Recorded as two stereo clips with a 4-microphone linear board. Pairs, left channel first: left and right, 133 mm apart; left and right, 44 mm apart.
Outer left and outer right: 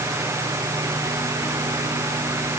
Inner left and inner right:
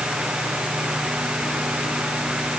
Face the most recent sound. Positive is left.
No sound to turn to.